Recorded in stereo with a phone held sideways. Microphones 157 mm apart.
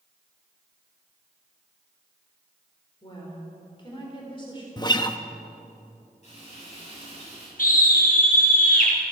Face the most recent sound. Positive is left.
turn(degrees=60)  # may be behind; listen again after turning